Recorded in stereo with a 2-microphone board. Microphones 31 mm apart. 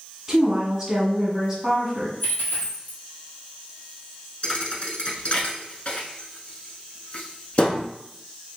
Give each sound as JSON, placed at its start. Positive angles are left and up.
{"t": 0.3, "sound": "a woman speaking", "side_deg": -5, "distance_m": 1.6}
{"t": 2.2, "sound": "a dropped coin", "side_deg": 80, "distance_m": 1.1}
{"t": 4.4, "sound": "a thud", "side_deg": 40, "distance_m": 0.7}